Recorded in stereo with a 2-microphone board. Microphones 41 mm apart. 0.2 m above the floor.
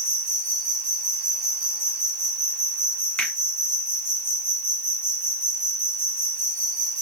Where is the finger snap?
30° left (ahead or behind), 2 m.